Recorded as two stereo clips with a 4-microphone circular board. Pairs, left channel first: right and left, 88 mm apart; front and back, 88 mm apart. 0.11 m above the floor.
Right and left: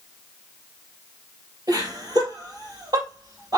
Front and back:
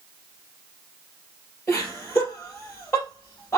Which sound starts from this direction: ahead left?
Laughter, at 1.7 s.